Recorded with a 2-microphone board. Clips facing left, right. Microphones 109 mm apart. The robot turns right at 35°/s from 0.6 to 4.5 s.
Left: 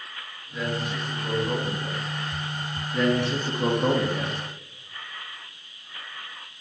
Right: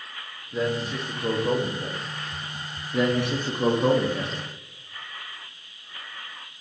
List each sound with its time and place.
0.5 s a man speaking: 130° right, 0.6 m; by 2.0 s 80° right, 0.6 m
2.9 s a man speaking: 20° right (ahead or behind), 0.5 m; by 4.4 s 5° left (ahead or behind), 0.5 m